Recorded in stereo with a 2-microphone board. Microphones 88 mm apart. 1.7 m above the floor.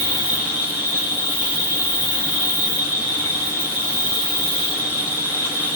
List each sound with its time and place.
0.0 s an insect: 25° right (ahead or behind), 1.0 m